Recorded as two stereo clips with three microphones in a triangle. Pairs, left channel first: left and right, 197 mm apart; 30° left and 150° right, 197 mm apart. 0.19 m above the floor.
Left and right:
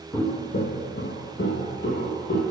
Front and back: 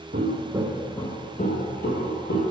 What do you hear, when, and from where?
0.1 s footsteps: 170° left, 1.3 m; by 2.4 s 55° left, 3 m